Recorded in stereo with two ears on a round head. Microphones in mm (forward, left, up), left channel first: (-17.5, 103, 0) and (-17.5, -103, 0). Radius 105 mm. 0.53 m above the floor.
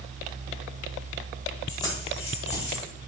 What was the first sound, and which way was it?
Keys jangling, 15° left (ahead or behind).